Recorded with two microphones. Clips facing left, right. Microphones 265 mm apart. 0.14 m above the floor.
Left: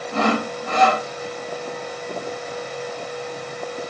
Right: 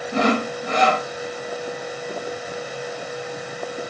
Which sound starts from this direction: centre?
Sawing, at 0.1 s.